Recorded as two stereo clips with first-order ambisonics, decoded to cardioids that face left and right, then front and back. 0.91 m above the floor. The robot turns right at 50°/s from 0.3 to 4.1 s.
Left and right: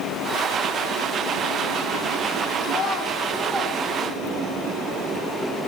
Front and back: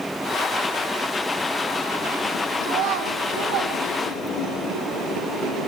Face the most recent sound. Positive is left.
turn(degrees=-145)